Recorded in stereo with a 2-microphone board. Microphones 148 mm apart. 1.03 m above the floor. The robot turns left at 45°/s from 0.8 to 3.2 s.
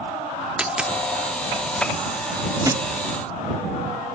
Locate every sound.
0.6 s a dropped coin: 5° right (ahead or behind)
2.6 s a thud: 25° right (ahead or behind); by 2.9 s 15° right (ahead or behind)